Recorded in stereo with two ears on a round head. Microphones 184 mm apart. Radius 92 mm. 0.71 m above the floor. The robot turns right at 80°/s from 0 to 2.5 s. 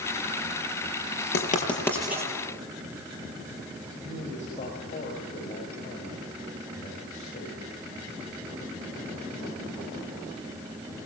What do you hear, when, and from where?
1.3 s writing: 55° left (ahead or behind), 5.5 m; by 2.3 s 20° right (ahead or behind), 5.5 m
3.9 s a man speaking: 40° left (ahead or behind), 5 m